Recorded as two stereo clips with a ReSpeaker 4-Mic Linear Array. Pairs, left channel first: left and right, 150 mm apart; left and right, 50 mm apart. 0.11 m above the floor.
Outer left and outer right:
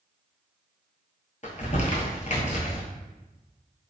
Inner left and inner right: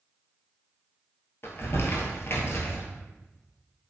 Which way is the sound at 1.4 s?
50° left (ahead or behind).